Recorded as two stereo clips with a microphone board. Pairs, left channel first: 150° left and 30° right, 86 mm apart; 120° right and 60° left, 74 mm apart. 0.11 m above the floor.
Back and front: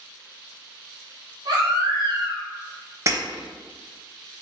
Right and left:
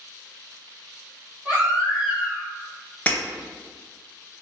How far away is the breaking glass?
About 0.7 m.